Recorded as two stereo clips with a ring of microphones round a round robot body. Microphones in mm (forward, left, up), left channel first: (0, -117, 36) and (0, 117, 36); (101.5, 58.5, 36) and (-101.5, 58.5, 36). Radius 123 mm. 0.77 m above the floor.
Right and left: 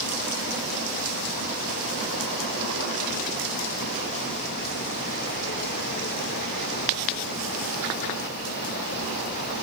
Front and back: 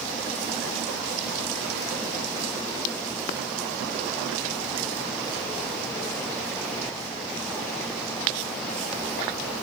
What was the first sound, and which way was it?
Only background noise.